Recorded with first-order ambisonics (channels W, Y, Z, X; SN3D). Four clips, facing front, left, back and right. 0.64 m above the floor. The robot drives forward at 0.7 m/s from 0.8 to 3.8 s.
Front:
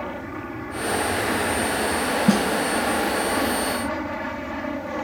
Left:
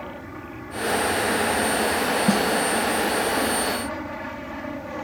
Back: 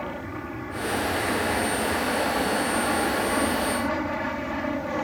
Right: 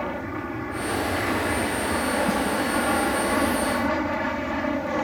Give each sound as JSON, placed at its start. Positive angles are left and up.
{"t": 0.0, "sound": "an aircraft", "azimuth_deg": -75}
{"t": 2.3, "sound": "a snare drum", "azimuth_deg": 20}